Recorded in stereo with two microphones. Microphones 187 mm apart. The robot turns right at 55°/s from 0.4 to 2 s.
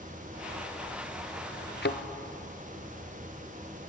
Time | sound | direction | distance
1.8 | a thud | 70° left (ahead or behind) | 1.0 m